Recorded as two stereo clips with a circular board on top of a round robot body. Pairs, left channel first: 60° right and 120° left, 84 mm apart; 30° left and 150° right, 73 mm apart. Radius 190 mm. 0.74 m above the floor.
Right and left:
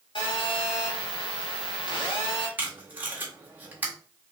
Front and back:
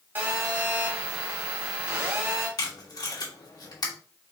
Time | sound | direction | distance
0.1 | a phone buzzing | 85° right | 1.8 m
2.6 | tape being pulled | 55° left | 1.7 m